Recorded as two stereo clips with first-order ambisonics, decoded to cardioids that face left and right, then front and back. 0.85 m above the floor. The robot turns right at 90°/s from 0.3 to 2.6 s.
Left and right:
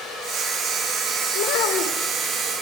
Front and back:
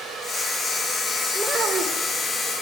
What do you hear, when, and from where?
1.4 s a child speaking: 85° left, 2 m; by 2.1 s 155° left, 2 m